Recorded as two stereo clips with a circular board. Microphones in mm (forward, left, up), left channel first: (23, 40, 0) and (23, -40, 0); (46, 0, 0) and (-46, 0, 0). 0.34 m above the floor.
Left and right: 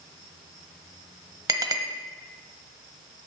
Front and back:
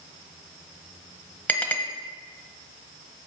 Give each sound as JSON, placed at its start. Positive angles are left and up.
{"t": 1.5, "sound": "a clink", "azimuth_deg": -70, "distance_m": 1.3}